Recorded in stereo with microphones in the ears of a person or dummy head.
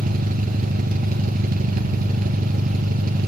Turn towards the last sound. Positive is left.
turn(degrees=-50)  # may be behind; listen again after turning